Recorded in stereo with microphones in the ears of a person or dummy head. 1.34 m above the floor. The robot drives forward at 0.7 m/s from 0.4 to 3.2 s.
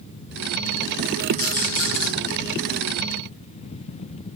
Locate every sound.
1.4 s a rattle: 70° left (ahead or behind), 7.5 m